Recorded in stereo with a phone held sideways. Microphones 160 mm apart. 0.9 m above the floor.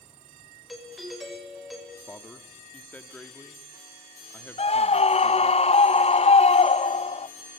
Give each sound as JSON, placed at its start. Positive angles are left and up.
{"t": 0.7, "sound": "a doorbell", "side_deg": 0, "distance_m": 5.5}
{"t": 2.1, "sound": "a man speaking", "side_deg": 10, "distance_m": 1.5}
{"t": 4.6, "sound": "a scream", "side_deg": 40, "distance_m": 0.6}